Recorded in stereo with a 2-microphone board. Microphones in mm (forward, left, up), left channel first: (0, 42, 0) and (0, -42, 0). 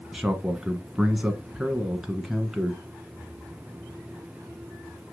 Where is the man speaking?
5° right (ahead or behind), 1.1 m.